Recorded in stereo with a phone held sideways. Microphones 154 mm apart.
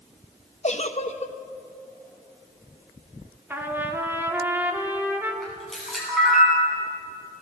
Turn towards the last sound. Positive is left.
turn(degrees=0)  # may be behind; listen again after turning